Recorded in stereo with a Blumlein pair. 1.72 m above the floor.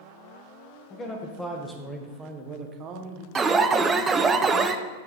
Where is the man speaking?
25° left, 1.4 m; by 3.2 s 35° right, 1.4 m.